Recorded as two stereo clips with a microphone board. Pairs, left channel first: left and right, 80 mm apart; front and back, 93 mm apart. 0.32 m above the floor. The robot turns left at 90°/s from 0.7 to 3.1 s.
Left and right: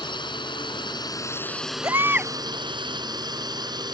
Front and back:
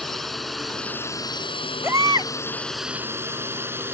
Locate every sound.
0.0 s a drone: 85° left; by 3.9 s 115° right
1.8 s a baby crying: 125° right; by 2.3 s 170° right